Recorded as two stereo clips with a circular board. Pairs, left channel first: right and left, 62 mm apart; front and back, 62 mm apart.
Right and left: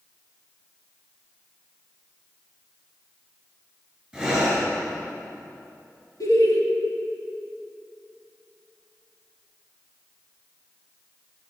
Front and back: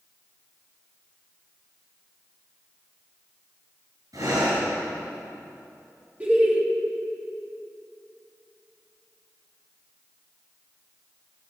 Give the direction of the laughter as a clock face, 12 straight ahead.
4 o'clock.